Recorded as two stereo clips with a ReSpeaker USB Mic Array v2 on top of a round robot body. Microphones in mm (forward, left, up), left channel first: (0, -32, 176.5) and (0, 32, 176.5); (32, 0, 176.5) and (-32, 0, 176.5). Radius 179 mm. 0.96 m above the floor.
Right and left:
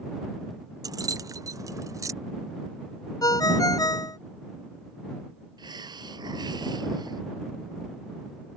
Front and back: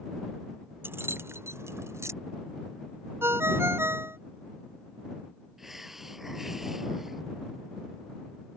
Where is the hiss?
95° left.